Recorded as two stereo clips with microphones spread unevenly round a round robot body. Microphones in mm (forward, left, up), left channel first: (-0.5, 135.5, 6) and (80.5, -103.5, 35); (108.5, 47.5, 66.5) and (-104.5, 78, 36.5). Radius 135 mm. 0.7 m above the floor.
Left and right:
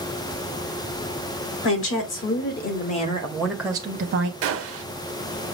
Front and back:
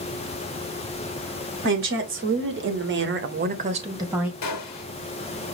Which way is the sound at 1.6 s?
145° left.